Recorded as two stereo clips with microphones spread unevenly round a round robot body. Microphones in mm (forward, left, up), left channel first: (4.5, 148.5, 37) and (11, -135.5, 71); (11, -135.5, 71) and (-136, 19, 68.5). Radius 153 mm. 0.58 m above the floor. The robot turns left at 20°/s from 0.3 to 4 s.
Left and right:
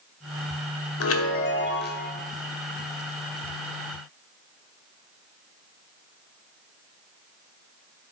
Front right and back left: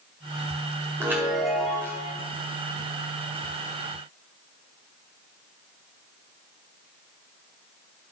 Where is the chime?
55° left, 1.6 m; by 2.1 s 30° left, 1.6 m.